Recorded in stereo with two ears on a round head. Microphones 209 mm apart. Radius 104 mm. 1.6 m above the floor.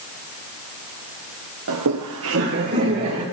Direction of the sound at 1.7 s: 60° right (ahead or behind).